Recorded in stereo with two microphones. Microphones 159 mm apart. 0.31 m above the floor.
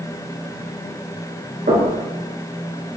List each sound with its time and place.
1.7 s knocking: 75° right (ahead or behind), 4 m